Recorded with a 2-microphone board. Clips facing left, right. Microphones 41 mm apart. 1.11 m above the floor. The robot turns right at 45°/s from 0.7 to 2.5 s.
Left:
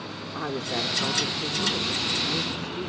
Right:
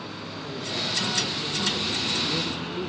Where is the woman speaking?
125° left, 1.3 m; by 2.9 s 155° right, 1.3 m.